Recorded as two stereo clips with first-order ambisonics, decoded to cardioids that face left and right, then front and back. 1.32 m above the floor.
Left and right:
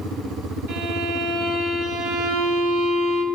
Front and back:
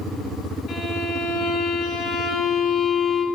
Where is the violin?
65° right, 5.5 m.